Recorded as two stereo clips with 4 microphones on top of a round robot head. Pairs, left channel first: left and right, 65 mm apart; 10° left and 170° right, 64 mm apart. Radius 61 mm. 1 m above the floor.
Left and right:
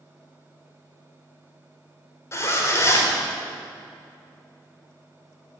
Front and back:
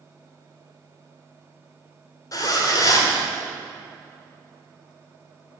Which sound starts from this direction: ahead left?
A zipper, at 2.3 s.